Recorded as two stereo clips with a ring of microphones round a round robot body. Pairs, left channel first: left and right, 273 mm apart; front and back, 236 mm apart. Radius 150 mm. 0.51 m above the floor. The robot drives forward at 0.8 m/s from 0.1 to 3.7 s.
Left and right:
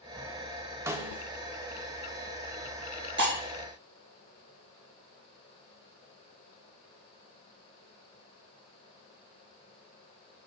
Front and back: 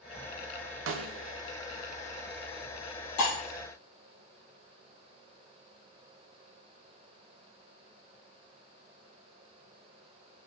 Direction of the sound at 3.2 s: 35° right.